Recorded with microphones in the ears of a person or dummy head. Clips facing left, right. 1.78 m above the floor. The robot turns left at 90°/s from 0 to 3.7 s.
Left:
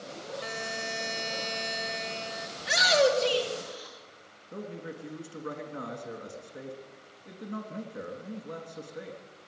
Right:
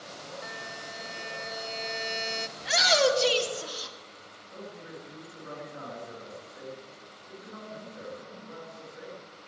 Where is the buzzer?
140° left, 0.8 m; by 2.5 s 50° right, 0.8 m.